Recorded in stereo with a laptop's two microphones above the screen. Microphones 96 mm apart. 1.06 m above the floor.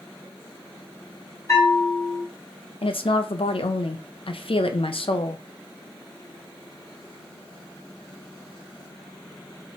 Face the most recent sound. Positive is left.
turn(degrees=70)  # may be behind; listen again after turning